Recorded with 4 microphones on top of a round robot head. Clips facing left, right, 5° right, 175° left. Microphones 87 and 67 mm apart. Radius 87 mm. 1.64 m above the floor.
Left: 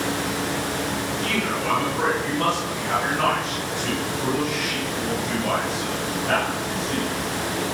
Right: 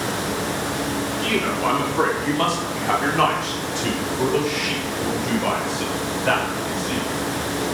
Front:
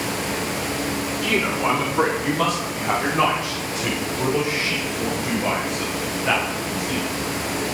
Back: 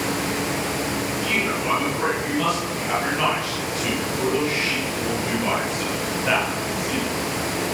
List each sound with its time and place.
1.2 s a man speaking: 50° right, 5 m; by 7.0 s 95° right, 9 m